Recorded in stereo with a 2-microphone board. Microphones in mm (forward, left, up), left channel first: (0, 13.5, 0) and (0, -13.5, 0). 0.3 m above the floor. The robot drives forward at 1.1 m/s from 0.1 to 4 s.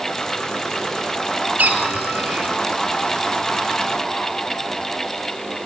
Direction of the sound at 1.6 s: 80° right.